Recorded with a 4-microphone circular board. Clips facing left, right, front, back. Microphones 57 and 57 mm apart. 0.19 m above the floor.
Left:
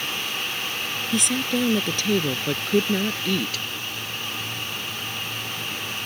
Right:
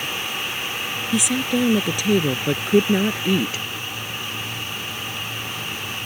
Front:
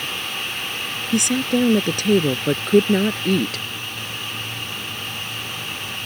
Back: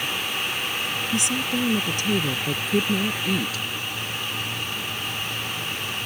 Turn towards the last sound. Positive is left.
turn(degrees=-25)